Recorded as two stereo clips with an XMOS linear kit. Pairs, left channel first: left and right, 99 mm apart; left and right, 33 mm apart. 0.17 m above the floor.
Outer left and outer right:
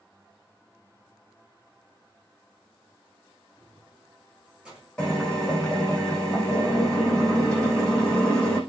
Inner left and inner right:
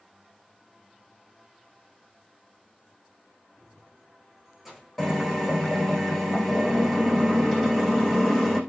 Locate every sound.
3.6 s keys jangling: 5° right (ahead or behind), 8 m; by 5.0 s 10° right (ahead or behind), 7.5 m
5.0 s a drill: 5° left (ahead or behind), 8.5 m